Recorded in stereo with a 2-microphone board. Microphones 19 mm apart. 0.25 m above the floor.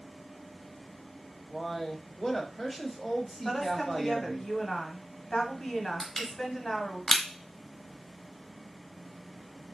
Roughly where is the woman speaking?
Left.